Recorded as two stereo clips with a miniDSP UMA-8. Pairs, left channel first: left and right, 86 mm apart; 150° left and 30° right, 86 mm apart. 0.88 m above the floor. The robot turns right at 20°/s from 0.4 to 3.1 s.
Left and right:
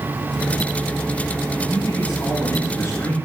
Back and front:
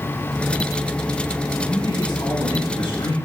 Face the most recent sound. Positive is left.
turn(degrees=155)